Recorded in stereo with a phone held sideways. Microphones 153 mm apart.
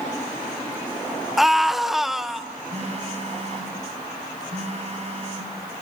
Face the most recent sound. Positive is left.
turn(degrees=-45)  # may be behind; listen again after turning